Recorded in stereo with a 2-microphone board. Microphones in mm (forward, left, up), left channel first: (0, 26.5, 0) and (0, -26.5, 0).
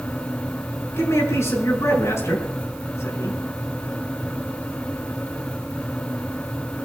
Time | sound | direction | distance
1.0 | a man speaking | 60° left (ahead or behind) | 7 m